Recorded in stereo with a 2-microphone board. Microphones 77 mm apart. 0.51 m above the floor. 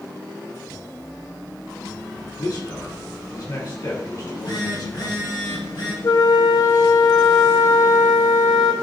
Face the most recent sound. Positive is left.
turn(degrees=60)  # may be behind; listen again after turning